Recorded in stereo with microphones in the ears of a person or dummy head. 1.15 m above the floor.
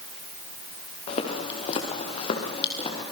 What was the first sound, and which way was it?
Footsteps, 35° left (ahead or behind).